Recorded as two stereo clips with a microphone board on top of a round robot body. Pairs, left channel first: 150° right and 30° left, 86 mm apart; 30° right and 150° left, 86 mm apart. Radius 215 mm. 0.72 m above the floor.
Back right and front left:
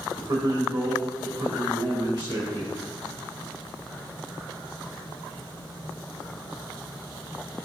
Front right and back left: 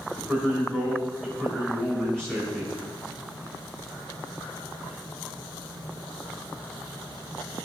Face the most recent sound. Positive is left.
turn(degrees=50)